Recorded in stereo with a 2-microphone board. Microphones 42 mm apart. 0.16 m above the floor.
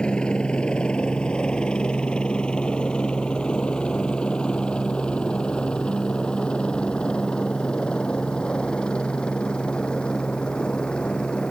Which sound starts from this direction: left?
A helicopter, at 0.0 s.